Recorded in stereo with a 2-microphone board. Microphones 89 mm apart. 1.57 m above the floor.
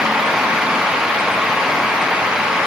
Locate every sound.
Only background noise.